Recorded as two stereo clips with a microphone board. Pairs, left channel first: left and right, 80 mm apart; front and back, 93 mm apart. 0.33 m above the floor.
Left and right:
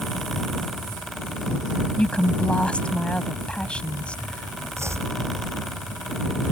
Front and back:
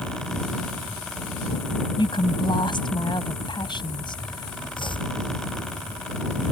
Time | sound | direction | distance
2.0 | a woman speaking | 15° left | ?
4.8 | chopping | 35° right | ?